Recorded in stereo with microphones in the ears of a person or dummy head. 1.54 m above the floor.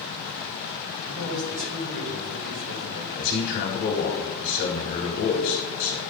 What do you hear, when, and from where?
1.1 s a man speaking: 50° right (ahead or behind), 1.9 m
3.1 s a man speaking: 60° left (ahead or behind), 1.1 m